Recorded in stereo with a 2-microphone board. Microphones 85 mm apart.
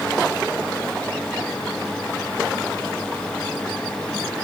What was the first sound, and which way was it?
Only background noise.